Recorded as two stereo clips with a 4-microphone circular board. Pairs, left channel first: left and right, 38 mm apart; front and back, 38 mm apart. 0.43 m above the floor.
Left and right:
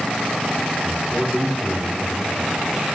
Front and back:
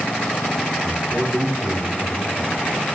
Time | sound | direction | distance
0.8 | a man speaking | 165° right | 5 m